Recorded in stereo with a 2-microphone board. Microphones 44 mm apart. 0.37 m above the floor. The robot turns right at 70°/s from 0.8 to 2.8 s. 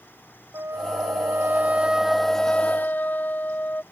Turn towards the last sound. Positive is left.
turn(degrees=45)